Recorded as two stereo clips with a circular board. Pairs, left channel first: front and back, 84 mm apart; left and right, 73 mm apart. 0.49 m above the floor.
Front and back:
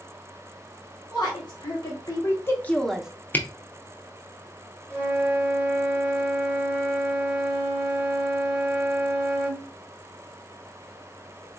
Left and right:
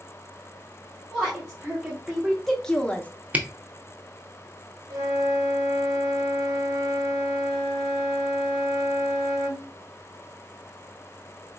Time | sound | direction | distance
1.1 | a woman speaking | 20° right | 1.6 m
3.3 | a camera shutter | 40° right | 0.6 m
4.9 | a flute | 70° right | 2 m